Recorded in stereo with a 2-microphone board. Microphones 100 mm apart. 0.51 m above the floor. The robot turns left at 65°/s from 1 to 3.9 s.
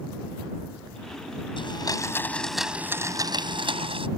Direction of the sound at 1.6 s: 65° left.